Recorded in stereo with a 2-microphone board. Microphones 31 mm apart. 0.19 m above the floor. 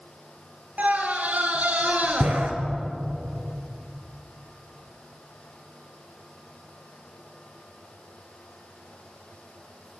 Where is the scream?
65° right (ahead or behind), 3.5 m.